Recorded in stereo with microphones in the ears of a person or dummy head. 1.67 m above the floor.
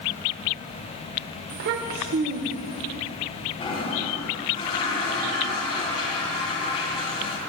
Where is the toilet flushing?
40° left (ahead or behind), 5 m.